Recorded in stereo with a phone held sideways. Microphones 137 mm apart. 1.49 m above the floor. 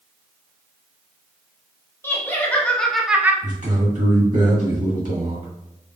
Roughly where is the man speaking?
Right.